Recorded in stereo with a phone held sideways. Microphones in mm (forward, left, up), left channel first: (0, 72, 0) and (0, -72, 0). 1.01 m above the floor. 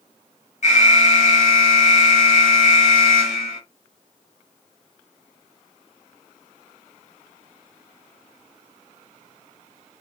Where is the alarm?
55° left (ahead or behind), 1.2 m.